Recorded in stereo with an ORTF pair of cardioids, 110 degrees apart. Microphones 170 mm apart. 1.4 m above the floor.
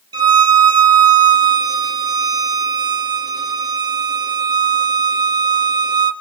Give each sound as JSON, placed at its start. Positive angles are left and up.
{"t": 0.1, "sound": "a violin", "azimuth_deg": -25, "distance_m": 1.5}